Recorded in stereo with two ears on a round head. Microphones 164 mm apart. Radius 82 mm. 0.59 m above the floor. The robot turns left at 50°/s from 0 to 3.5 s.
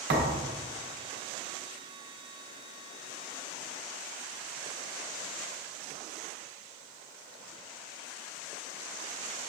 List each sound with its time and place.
0.1 s a thud: 65° right (ahead or behind), 1.3 m; by 0.5 s 45° right (ahead or behind), 1.3 m